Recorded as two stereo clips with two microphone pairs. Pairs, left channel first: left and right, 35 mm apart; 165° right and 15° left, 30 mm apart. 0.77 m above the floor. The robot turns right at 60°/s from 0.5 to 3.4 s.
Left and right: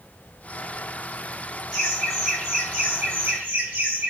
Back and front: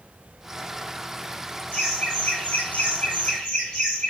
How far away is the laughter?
About 4.5 m.